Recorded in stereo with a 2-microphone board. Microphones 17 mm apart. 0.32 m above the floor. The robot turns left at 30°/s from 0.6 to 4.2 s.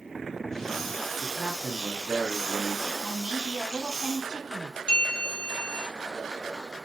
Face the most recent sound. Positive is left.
turn(degrees=75)  # may be behind; listen again after turning